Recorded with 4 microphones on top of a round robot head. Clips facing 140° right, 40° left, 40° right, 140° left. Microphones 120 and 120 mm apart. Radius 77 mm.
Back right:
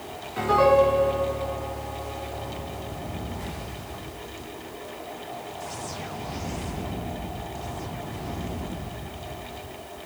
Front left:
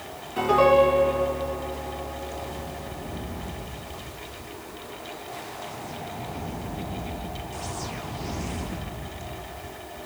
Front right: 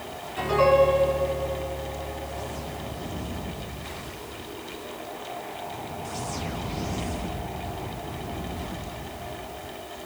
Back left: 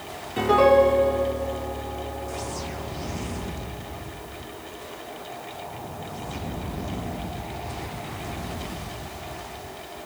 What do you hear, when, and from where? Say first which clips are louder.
0.4 s a piano: front left 1 dB, back left 3 dB; 115° left, 2.5 m